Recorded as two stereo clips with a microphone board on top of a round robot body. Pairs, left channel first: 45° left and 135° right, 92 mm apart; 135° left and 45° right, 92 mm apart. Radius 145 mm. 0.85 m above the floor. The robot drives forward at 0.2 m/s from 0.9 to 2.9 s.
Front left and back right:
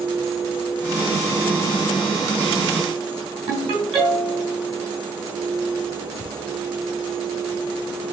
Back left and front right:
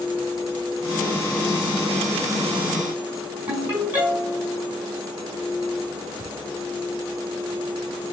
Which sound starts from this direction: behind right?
A ringtone, at 3.5 s.